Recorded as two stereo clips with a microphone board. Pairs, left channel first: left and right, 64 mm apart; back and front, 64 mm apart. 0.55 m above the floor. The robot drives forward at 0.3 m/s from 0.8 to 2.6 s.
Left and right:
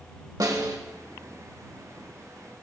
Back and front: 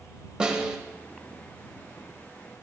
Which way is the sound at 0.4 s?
75° right.